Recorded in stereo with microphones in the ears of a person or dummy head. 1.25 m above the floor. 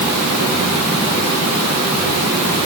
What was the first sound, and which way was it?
Only background noise.